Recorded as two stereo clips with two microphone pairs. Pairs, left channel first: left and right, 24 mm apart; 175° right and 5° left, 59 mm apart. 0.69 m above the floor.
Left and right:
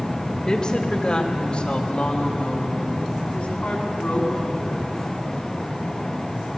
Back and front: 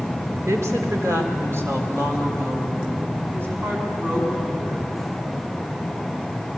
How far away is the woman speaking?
About 2.5 m.